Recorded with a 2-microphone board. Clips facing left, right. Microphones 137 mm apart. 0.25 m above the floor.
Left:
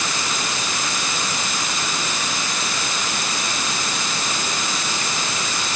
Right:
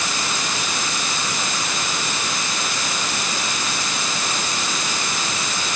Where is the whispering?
No whispering in this recording.